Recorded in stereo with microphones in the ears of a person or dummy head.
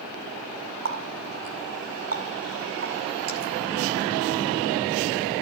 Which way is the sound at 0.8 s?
40° right (ahead or behind).